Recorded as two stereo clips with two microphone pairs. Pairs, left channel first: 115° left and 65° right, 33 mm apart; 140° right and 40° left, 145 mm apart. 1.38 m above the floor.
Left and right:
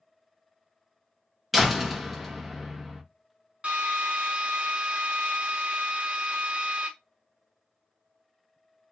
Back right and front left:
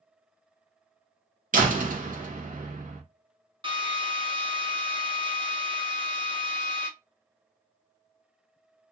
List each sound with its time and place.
1.5 s a door slam: 30° left, 0.9 m
3.6 s a drill: 15° right, 1.0 m